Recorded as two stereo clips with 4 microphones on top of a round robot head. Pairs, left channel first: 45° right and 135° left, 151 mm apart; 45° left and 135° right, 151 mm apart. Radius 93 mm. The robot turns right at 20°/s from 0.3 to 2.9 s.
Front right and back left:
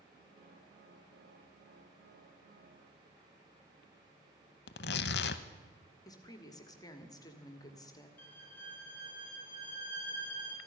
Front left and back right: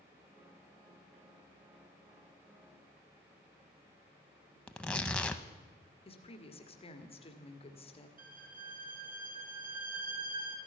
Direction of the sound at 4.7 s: 40° right.